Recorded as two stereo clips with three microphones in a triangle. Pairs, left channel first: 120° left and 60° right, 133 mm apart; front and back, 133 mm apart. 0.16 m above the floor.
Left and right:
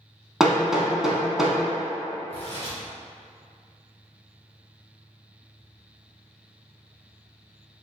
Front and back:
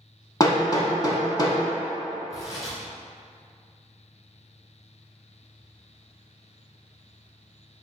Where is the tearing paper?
55° left, 1.5 m.